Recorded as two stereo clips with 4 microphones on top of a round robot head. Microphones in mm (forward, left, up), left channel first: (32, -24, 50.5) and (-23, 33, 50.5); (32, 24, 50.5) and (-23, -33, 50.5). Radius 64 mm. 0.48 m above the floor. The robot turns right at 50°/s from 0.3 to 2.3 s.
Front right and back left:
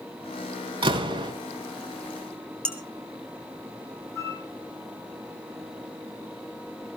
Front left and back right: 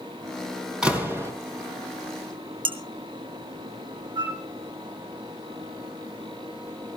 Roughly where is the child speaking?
I don't hear a child speaking.